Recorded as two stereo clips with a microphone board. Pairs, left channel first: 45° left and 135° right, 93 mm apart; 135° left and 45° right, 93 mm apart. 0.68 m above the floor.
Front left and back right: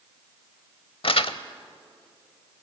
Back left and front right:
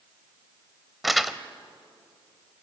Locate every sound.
1.0 s crumpling: 45° left, 0.9 m